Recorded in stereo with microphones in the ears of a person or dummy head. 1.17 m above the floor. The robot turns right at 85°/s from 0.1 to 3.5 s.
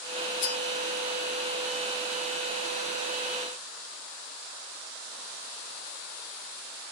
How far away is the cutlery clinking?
About 3.5 m.